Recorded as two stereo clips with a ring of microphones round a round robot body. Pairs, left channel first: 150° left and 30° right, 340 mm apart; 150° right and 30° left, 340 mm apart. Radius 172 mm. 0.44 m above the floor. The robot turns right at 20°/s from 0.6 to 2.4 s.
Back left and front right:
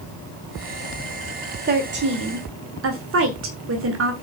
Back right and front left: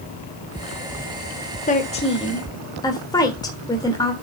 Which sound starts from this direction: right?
A woman speaking, at 1.7 s.